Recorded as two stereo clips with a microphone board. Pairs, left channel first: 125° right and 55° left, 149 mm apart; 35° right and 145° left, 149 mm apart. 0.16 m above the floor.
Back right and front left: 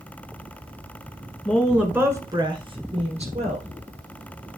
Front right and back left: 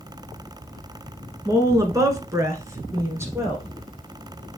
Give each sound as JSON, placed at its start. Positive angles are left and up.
{"t": 1.4, "sound": "a woman speaking", "azimuth_deg": 160, "distance_m": 1.6}